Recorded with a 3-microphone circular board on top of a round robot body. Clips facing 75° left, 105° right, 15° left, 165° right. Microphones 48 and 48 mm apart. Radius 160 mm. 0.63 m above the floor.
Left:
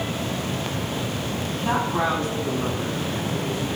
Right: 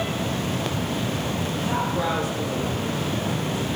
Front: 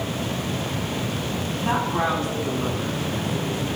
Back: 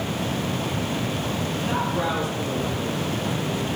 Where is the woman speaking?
35° left, 8.5 m.